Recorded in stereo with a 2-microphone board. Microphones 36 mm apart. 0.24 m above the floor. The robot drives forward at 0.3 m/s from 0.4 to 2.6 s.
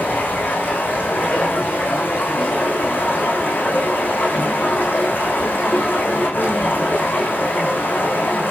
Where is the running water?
65° left (ahead or behind), 7.5 m.